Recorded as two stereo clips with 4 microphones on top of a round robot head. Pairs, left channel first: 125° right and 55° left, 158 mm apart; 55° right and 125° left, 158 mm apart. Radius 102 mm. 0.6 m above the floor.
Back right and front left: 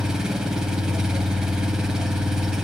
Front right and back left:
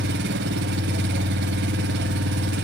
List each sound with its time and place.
0.0 s an engine running: 145° left, 0.8 m